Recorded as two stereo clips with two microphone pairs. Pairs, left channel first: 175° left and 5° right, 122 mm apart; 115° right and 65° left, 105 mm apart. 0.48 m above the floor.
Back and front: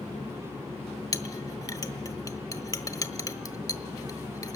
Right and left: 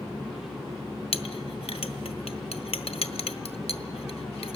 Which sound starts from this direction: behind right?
A clink, at 1.1 s.